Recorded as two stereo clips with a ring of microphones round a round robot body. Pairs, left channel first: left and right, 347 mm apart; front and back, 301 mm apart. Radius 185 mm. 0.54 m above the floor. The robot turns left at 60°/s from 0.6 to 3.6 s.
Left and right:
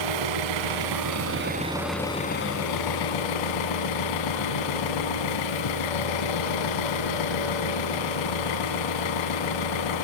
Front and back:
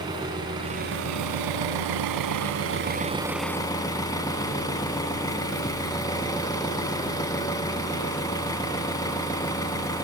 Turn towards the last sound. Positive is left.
turn(degrees=80)